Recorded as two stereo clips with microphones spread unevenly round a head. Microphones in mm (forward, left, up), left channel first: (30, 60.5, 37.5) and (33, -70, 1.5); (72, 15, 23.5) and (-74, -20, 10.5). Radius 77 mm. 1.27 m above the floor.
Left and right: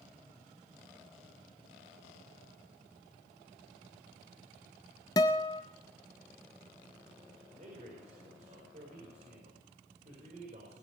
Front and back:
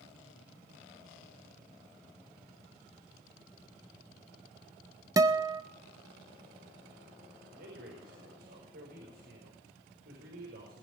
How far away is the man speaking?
About 5 m.